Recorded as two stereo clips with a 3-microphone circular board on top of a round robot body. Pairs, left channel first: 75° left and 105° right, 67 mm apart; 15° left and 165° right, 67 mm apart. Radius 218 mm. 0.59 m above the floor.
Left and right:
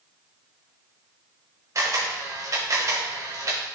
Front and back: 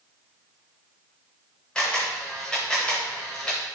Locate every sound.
1.8 s a camera shutter: 65° right, 0.6 m